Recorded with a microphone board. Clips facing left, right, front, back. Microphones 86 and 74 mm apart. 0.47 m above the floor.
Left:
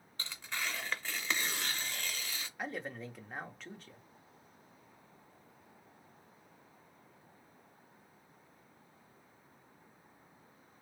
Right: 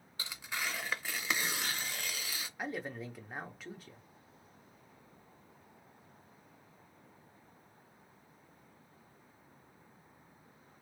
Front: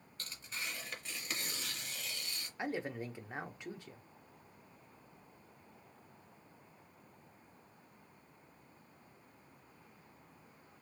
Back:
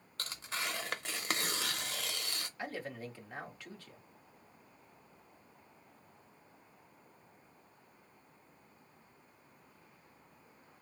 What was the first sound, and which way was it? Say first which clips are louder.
Tearing paper: right 1 dB, back 5 dB; 170° right.